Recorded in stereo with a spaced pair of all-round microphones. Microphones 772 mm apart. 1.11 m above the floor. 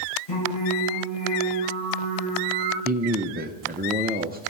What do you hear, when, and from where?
0.3 s singing: 65° left (ahead or behind), 6.5 m
2.9 s a man speaking: 15° right (ahead or behind), 0.7 m